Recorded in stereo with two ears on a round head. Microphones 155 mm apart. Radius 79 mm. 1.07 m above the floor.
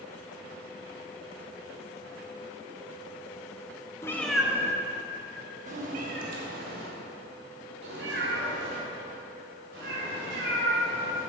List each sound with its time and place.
4.0 s a cat meowing: 15° left (ahead or behind), 0.6 m; by 11.2 s 70° right (ahead or behind), 4 m